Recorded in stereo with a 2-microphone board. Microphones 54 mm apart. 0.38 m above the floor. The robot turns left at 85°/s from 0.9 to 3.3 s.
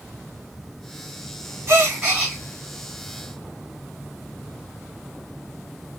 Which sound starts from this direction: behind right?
A gasp, at 1.7 s.